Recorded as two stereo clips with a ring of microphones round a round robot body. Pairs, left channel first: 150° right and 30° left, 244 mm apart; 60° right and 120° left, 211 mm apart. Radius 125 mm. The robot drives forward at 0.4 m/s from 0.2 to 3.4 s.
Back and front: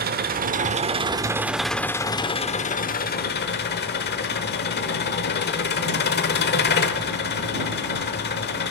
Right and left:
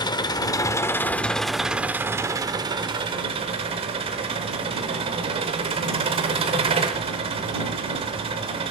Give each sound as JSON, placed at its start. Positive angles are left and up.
{"t": 0.0, "sound": "an engine running", "azimuth_deg": 0, "distance_m": 0.8}